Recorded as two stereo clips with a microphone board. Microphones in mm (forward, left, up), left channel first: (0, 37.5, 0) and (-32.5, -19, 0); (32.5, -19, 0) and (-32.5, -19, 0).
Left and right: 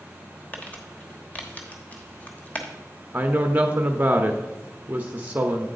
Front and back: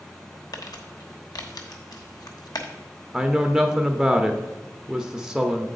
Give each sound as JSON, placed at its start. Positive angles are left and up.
{"t": 0.5, "sound": "crumpling", "azimuth_deg": -5, "distance_m": 1.0}
{"t": 3.1, "sound": "a woman speaking", "azimuth_deg": -105, "distance_m": 0.6}